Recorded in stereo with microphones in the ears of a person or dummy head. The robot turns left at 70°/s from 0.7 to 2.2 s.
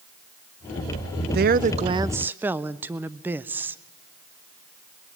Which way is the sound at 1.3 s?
110° right.